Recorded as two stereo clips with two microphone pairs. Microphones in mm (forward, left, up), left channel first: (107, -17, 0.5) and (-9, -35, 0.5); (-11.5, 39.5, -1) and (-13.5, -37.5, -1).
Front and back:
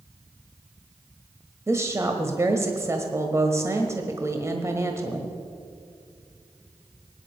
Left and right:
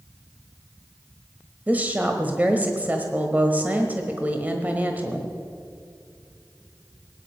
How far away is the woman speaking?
About 1.3 m.